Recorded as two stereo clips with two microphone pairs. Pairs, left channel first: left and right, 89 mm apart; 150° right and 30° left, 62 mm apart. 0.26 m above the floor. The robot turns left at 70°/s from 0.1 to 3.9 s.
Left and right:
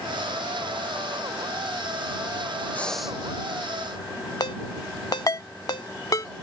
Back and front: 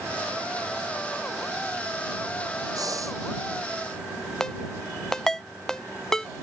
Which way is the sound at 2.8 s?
20° left.